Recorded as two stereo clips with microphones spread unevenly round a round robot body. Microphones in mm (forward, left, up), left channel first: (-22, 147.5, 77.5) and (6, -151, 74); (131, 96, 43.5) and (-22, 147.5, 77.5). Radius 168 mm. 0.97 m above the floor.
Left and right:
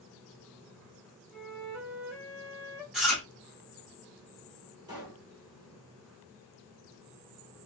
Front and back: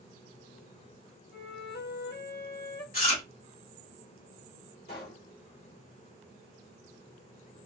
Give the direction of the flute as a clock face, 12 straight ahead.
12 o'clock.